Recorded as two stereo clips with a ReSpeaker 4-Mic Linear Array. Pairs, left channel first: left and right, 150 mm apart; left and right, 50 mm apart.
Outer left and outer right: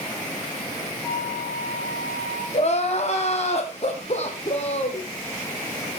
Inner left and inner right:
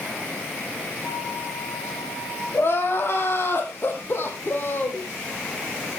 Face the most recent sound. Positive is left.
turn(degrees=45)  # may be behind; listen again after turning